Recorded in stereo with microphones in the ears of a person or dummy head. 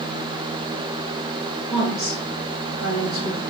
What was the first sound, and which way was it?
A woman speaking, 25° right (ahead or behind).